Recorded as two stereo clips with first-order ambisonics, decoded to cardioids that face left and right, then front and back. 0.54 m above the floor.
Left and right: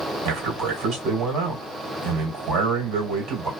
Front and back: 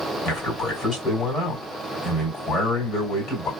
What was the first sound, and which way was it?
A man speaking, 65° right.